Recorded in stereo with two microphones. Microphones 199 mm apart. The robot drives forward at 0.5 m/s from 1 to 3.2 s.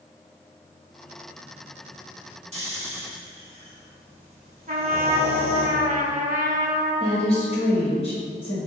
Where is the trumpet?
40° right (ahead or behind), 0.5 m.